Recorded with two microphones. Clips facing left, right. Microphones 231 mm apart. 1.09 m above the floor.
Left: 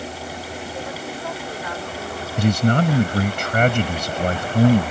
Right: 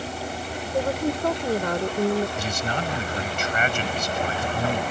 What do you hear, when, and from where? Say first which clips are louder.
0.7 s a woman speaking: right 11 dB; 50° right (ahead or behind)
2.4 s a man speaking: left 10 dB; 55° left (ahead or behind)